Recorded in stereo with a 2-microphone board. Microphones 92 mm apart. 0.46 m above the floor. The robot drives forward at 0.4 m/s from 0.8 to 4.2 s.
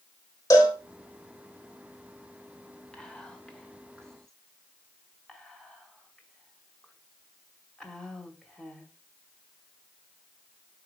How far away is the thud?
No thud in this recording.